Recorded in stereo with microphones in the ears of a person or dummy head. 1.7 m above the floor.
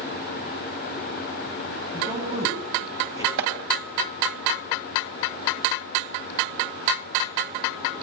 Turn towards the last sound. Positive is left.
turn(degrees=-55)  # may be behind; listen again after turning